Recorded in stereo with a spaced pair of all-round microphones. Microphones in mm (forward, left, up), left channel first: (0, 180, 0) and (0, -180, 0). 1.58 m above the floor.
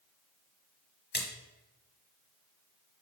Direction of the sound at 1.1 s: 30° left (ahead or behind).